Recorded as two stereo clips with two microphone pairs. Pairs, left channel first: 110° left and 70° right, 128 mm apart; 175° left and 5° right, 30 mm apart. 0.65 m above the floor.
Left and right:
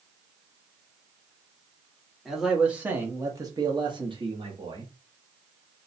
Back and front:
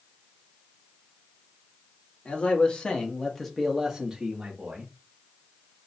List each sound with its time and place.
2.2 s a man speaking: 160° right, 1.3 m; by 4.9 s 45° right, 1.4 m